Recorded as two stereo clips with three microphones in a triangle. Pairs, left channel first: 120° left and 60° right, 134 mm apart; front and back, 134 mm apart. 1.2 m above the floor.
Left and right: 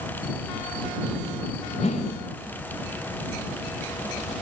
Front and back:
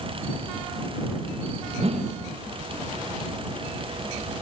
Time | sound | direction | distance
1.8 | a whoosh | 145° left | ?